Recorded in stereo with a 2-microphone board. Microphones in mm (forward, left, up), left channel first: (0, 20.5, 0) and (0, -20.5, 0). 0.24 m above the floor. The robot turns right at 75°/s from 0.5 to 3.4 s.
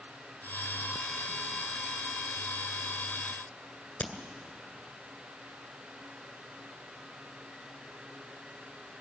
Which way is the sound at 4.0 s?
25° left (ahead or behind).